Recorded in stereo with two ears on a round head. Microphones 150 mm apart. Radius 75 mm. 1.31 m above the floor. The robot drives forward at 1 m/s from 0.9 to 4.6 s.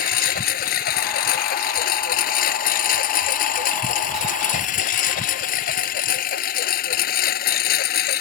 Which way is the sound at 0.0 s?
60° left (ahead or behind).